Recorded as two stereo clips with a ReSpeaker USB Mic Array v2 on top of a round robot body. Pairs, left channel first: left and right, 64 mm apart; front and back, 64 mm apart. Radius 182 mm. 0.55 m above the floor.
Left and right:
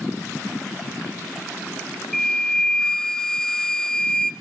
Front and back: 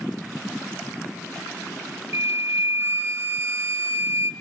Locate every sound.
2.1 s a flute: 170° left, 1.3 m